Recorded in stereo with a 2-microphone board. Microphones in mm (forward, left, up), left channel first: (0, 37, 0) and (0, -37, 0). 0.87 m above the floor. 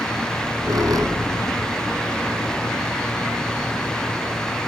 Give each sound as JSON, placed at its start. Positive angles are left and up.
{"t": 0.3, "sound": "a squeak", "side_deg": -55, "distance_m": 2.5}